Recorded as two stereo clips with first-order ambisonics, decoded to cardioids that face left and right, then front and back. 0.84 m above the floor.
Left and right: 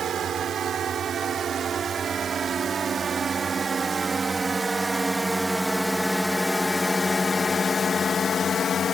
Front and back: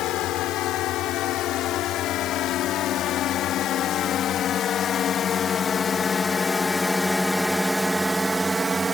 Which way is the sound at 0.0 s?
35° right.